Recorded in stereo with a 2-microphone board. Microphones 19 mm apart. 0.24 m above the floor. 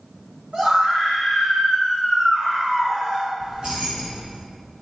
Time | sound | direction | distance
0.5 | a scream | 60° right (ahead or behind) | 3 m
3.4 | keys jangling | 55° right (ahead or behind) | 1.9 m